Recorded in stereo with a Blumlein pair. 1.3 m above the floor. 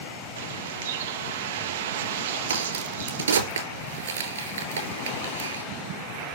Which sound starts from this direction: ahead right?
A bird, at 0.4 s.